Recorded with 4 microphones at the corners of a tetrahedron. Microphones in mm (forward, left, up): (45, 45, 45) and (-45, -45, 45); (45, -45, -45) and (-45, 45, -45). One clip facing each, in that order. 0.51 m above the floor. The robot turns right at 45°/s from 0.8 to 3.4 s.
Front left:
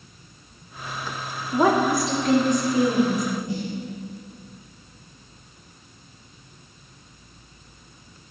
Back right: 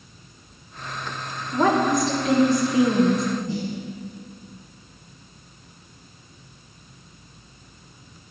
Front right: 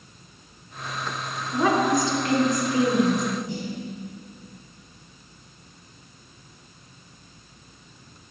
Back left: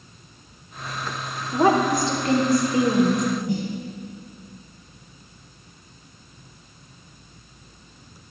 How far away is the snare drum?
About 2.5 m.